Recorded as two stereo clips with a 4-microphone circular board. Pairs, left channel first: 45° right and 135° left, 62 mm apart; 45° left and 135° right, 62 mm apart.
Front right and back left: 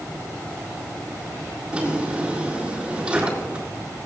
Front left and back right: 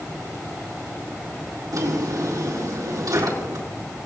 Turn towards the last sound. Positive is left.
turn(degrees=-155)